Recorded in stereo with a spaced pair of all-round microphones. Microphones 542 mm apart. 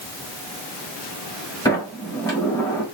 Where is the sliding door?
5° left (ahead or behind), 1.7 m.